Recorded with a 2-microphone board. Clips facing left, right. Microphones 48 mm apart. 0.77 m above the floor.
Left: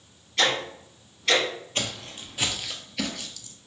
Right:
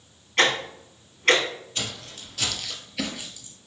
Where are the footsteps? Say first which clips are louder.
Left 2 dB; 45° left (ahead or behind), 1.2 m; by 3.6 s 25° right (ahead or behind), 1.0 m.